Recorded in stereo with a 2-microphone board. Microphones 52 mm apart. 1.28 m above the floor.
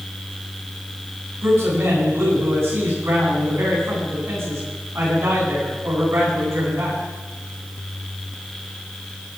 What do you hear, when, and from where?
1.4 s a man speaking: 55° right (ahead or behind), 9 m